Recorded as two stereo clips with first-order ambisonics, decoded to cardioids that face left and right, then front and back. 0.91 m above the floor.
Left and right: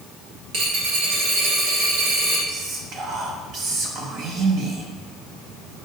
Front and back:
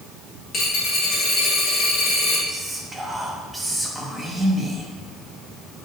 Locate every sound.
0.5 s a dropped coin: 60° right, 1.8 m
2.5 s whispering: 105° right, 0.7 m